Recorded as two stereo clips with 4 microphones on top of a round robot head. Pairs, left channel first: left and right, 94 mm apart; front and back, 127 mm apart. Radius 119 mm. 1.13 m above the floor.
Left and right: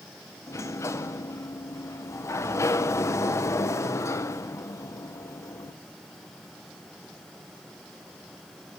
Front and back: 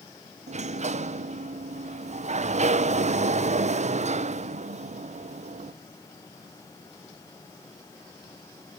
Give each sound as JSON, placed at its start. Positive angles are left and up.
{"t": 0.5, "sound": "a sliding door", "azimuth_deg": 150, "distance_m": 0.6}